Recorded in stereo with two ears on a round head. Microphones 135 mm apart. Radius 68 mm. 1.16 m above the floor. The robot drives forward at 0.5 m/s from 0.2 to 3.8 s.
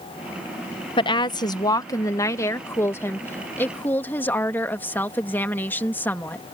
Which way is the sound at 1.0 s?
35° left (ahead or behind).